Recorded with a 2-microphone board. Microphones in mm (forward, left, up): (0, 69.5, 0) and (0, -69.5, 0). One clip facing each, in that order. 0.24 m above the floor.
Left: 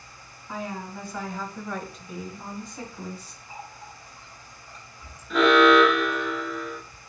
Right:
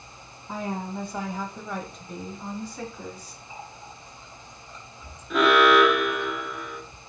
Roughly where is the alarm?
Centre.